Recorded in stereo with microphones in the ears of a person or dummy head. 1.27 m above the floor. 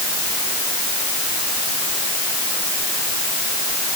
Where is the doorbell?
I don't hear a doorbell.